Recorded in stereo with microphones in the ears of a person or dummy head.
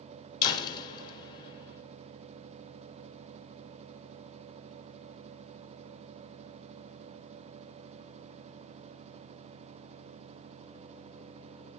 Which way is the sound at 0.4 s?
25° left (ahead or behind).